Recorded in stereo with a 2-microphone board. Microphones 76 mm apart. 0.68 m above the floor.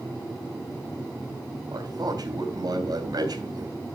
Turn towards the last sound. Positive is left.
turn(degrees=-60)  # may be behind; listen again after turning